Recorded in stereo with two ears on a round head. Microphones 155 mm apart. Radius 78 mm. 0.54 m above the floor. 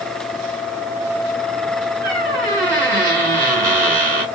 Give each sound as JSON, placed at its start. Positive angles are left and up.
{"t": 2.0, "sound": "a squeak", "side_deg": -55, "distance_m": 3.0}